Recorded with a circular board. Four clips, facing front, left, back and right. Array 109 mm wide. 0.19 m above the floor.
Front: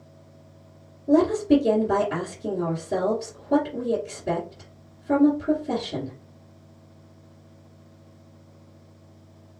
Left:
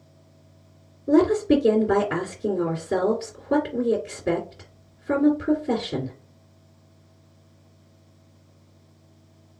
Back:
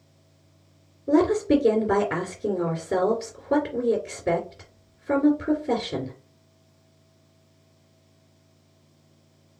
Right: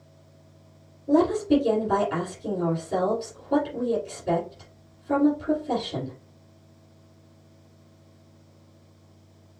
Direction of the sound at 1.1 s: 130° left.